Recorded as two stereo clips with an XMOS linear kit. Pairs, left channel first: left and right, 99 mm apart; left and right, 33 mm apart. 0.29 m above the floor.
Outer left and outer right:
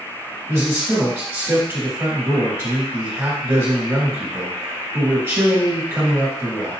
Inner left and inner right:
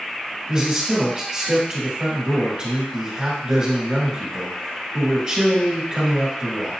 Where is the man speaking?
25° right (ahead or behind), 1.4 m.